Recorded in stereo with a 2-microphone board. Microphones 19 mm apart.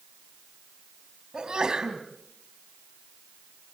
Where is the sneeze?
35° right (ahead or behind), 4 m.